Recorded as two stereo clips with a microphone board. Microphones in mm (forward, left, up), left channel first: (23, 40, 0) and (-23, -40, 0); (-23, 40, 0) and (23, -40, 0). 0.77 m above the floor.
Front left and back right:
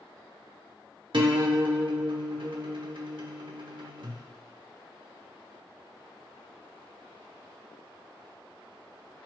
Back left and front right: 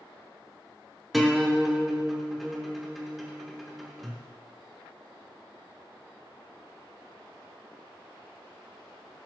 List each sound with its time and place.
1.1 s a guitar: 150° right, 1.2 m